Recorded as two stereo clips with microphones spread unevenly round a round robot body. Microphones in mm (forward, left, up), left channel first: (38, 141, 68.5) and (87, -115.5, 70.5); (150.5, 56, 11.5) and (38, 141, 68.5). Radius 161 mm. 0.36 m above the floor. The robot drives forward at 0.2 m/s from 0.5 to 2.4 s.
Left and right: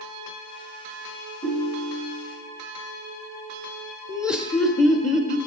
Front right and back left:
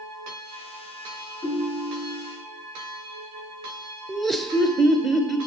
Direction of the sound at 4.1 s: 5° left.